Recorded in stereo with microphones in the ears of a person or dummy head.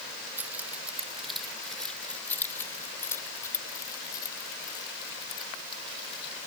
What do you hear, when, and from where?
0.4 s keys jangling: 15° right (ahead or behind); by 6.3 s 30° left (ahead or behind)